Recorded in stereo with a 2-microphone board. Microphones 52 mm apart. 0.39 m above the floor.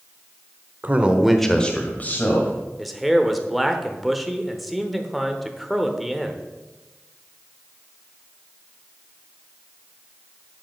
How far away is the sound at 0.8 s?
About 1.1 m.